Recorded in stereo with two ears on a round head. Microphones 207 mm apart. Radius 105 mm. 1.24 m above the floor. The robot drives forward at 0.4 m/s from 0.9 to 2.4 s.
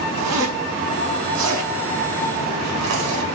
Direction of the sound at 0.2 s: 75° right (ahead or behind).